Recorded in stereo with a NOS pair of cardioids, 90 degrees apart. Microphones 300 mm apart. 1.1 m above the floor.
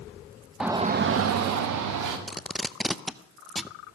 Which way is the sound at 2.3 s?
Straight ahead.